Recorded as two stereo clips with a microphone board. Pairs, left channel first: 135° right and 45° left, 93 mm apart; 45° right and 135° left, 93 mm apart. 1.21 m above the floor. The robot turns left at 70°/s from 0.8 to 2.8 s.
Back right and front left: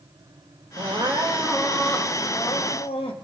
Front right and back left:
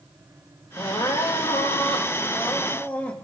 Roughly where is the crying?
Ahead.